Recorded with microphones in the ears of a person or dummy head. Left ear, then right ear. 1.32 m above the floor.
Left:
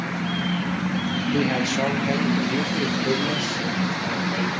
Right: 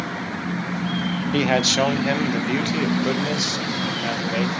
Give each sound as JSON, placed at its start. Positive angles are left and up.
{"t": 1.3, "sound": "a man speaking", "side_deg": -35, "distance_m": 0.7}